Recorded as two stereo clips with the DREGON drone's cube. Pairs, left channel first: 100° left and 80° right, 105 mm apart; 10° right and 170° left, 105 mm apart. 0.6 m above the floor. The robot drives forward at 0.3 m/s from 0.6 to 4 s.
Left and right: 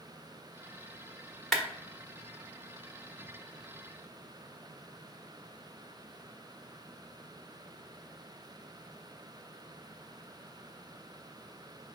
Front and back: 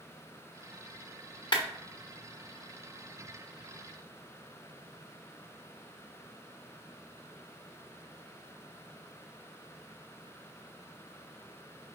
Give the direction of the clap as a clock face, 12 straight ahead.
12 o'clock.